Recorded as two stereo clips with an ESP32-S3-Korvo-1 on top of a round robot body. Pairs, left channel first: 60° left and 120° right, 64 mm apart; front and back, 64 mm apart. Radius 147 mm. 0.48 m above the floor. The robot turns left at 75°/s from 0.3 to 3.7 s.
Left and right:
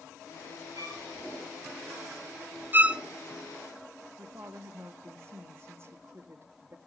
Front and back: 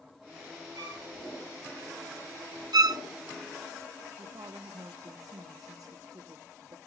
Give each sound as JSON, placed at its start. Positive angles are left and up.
{"t": 0.8, "sound": "a violin", "azimuth_deg": -150, "distance_m": 8.5}
{"t": 2.7, "sound": "a violin", "azimuth_deg": 180, "distance_m": 0.8}
{"t": 4.2, "sound": "a woman speaking", "azimuth_deg": -170, "distance_m": 1.2}